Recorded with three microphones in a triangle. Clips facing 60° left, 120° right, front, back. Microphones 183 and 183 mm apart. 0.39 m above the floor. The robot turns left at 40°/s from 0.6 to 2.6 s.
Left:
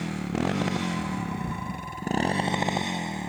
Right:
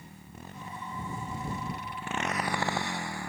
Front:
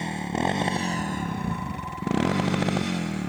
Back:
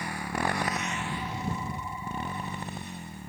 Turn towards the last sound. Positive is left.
turn(degrees=-10)